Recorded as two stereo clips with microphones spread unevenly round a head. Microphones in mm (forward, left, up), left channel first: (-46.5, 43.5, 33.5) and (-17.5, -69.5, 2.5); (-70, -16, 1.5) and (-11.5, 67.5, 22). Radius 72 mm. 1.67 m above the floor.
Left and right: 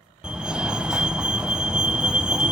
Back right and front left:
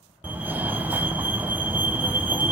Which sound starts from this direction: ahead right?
A fire alarm, at 0.2 s.